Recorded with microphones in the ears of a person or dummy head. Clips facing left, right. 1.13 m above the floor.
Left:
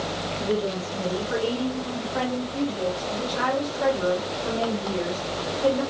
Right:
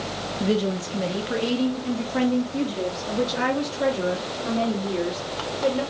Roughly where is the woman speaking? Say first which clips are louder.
Right 3 dB; right.